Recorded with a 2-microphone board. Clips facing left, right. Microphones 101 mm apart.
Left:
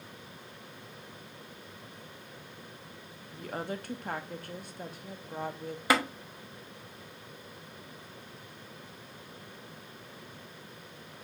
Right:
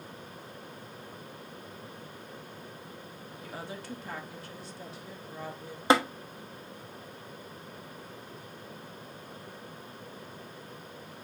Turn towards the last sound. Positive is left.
turn(degrees=-25)  # may be behind; listen again after turning